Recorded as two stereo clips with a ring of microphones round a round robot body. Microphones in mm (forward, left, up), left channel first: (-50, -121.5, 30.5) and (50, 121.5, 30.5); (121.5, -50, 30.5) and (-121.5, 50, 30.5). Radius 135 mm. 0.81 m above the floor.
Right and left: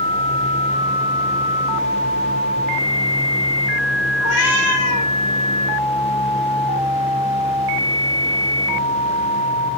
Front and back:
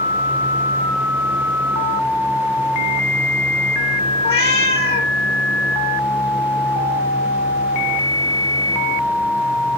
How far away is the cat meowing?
About 5 m.